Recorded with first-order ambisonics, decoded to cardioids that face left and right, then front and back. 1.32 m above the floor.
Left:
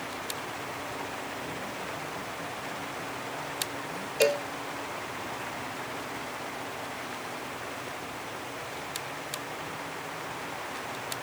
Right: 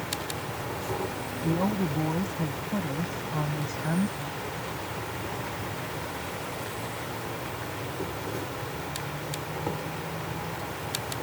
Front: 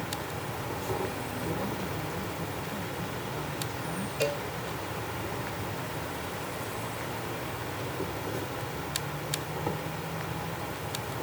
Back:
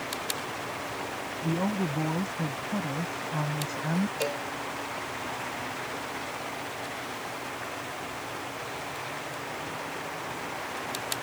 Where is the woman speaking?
120° right.